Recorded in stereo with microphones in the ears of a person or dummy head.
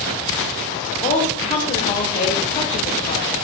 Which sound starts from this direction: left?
A woman speaking, at 1.0 s.